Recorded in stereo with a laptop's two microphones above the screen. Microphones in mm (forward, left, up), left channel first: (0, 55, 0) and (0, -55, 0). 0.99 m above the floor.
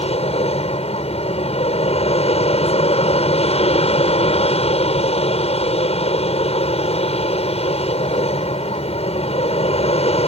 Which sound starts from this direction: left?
An aircraft, at 0.0 s.